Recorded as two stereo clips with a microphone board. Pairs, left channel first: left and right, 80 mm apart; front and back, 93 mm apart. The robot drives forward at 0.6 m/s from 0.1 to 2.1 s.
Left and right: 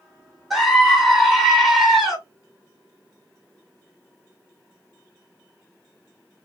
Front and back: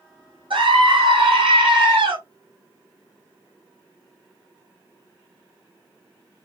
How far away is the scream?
About 2.5 m.